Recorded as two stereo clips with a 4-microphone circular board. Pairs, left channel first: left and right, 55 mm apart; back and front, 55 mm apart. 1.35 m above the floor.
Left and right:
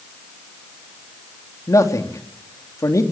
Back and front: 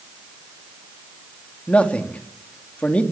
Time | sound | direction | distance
1.7 | a man speaking | 110° left | 3 m